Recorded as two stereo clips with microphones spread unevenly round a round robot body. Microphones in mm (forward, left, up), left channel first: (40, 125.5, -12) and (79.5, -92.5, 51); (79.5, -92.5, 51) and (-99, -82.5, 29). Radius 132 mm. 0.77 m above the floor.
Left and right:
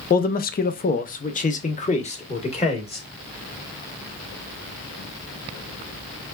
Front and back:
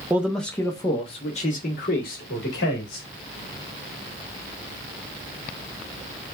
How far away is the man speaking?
About 0.6 m.